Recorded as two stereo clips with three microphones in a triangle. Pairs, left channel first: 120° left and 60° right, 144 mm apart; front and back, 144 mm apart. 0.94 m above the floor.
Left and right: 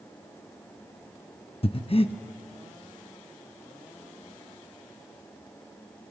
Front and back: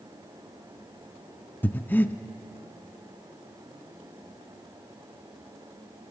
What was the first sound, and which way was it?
Breathing, 75° left.